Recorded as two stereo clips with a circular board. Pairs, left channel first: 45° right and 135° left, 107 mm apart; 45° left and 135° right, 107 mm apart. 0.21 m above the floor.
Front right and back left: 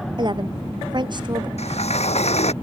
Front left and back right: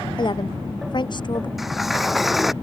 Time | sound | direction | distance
0.2 | a woman speaking | 90° left | ?
1.6 | a sliding door | 45° right | ?